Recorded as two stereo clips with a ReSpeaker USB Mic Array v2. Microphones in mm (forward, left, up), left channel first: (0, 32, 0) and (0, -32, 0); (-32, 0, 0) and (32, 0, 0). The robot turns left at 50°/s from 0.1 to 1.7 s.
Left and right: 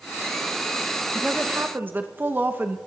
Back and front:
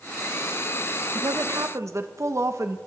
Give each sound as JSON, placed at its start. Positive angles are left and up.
{"t": 1.1, "sound": "a woman speaking", "azimuth_deg": -5, "distance_m": 0.7}